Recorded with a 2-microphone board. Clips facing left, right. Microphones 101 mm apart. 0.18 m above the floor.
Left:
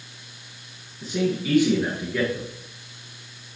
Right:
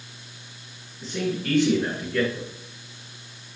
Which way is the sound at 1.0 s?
5° left (ahead or behind).